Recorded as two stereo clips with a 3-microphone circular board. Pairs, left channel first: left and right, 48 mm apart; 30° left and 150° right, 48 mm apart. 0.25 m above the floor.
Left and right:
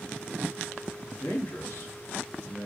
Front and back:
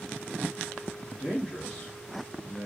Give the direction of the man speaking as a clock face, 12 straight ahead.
9 o'clock.